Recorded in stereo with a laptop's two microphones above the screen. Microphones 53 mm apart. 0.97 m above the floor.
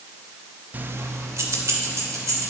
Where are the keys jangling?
30° right (ahead or behind), 0.6 m; by 2.5 s 75° right (ahead or behind), 3 m.